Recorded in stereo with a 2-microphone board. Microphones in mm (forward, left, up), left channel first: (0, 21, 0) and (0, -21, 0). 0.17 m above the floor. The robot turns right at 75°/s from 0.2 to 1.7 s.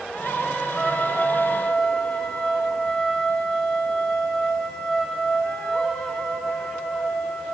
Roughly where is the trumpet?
Centre.